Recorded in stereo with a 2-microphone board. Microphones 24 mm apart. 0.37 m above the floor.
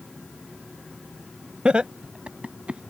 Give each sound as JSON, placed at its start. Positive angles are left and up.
{"t": 1.6, "sound": "laughter", "side_deg": -55}